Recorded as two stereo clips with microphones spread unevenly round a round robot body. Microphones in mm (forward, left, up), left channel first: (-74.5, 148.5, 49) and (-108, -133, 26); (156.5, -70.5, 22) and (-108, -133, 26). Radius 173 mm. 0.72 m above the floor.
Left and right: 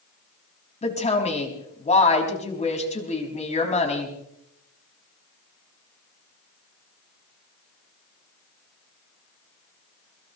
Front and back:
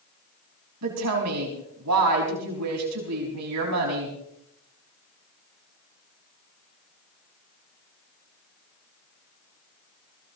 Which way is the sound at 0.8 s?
150° left.